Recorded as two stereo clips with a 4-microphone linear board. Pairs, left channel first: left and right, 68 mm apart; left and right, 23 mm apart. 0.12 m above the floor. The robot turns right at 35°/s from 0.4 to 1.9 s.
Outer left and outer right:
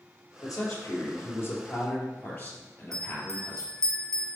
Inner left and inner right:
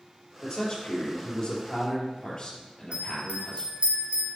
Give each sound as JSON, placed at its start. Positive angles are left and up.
{"t": 0.4, "sound": "a man speaking", "azimuth_deg": 100, "distance_m": 2.5}
{"t": 2.9, "sound": "a bell", "side_deg": -55, "distance_m": 1.4}